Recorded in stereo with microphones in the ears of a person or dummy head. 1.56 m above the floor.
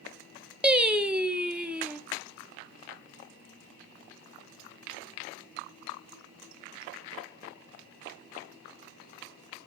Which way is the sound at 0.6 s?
5° right (ahead or behind).